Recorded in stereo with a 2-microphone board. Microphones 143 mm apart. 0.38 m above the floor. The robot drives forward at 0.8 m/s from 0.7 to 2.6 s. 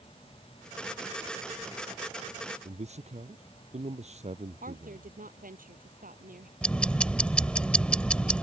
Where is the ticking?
10° left (ahead or behind).